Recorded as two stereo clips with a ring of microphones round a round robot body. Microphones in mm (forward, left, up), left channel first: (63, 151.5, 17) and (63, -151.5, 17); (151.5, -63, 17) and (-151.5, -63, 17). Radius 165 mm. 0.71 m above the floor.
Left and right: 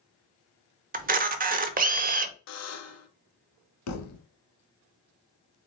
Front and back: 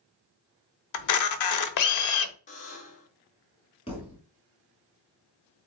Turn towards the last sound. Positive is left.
turn(degrees=70)